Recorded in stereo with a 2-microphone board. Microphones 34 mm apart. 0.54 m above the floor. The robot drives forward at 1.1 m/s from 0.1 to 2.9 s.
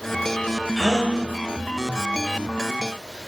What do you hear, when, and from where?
0.8 s a gasp: 10° left (ahead or behind), 1.6 m; by 1.2 s 15° left (ahead or behind), 1.2 m